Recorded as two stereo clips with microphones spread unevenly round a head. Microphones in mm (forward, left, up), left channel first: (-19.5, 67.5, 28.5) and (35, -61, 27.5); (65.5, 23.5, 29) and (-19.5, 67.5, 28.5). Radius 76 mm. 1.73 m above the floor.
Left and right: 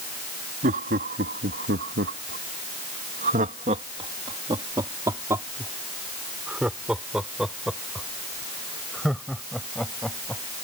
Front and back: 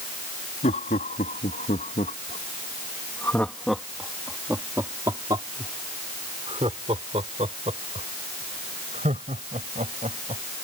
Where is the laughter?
35° right; by 10.4 s 160° right.